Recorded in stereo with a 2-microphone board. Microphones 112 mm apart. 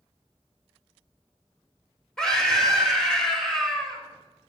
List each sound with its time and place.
2.2 s a scream: 5° left (ahead or behind), 2.5 m